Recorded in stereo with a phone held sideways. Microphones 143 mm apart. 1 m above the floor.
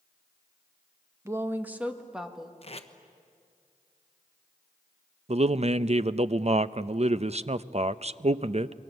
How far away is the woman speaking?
About 1.2 m.